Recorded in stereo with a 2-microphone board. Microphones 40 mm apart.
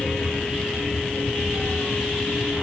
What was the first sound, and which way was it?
Only background noise.